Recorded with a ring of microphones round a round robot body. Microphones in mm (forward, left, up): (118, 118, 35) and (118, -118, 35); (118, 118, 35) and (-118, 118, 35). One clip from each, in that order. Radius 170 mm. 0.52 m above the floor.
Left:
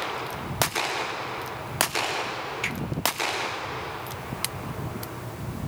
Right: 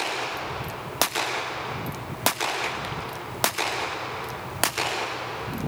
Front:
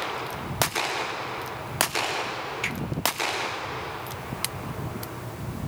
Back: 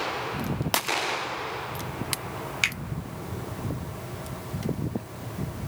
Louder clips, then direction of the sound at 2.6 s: Even, back 6 dB; 170° left.